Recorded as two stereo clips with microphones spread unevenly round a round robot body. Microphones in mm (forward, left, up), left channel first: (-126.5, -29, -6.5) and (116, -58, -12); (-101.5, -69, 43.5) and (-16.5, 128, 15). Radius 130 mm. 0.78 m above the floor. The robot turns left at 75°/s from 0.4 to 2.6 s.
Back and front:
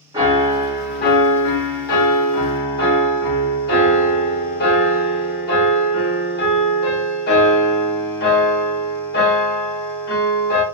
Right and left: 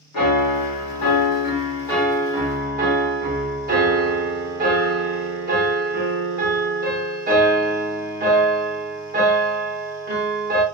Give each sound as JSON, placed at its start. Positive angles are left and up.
{"t": 0.1, "sound": "a piano", "azimuth_deg": -80, "distance_m": 1.4}